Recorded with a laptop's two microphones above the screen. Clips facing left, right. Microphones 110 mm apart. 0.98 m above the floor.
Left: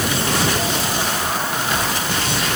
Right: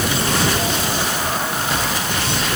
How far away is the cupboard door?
I don't hear a cupboard door.